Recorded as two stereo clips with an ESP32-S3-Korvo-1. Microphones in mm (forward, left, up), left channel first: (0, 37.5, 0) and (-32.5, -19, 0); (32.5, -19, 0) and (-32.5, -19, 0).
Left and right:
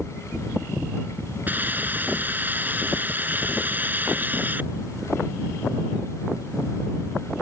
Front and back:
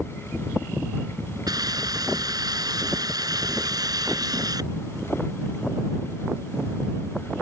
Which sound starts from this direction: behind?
A hiss, at 1.5 s.